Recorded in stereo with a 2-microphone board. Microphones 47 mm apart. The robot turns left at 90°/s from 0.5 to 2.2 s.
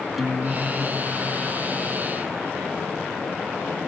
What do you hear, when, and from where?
0.2 s a guitar: 5° right; by 2.2 s 160° right